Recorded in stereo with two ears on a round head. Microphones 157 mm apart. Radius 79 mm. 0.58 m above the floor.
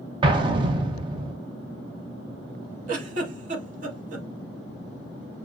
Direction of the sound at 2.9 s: 45° right (ahead or behind).